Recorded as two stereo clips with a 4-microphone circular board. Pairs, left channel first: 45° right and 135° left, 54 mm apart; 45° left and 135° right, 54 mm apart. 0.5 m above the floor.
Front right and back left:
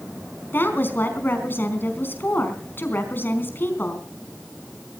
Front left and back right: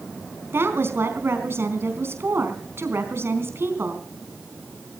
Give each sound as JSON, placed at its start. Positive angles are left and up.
{"t": 0.5, "sound": "a woman speaking", "azimuth_deg": -95, "distance_m": 4.0}